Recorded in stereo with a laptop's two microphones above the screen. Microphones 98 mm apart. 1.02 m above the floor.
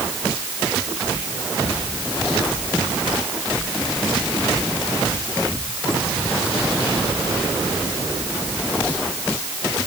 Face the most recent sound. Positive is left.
No sound to turn to.